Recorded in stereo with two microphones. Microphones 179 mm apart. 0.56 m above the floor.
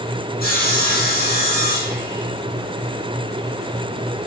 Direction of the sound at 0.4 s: 55° left (ahead or behind).